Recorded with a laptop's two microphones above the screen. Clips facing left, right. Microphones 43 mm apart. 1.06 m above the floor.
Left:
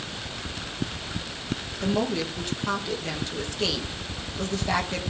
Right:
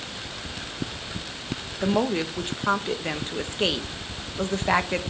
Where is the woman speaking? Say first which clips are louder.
Right 3 dB; 30° right (ahead or behind), 1.0 m.